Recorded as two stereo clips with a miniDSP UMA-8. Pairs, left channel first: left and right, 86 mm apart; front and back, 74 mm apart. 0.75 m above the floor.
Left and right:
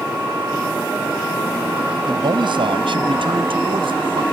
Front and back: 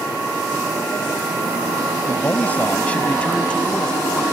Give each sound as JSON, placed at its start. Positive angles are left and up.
{"t": 2.0, "sound": "a man speaking", "azimuth_deg": -65}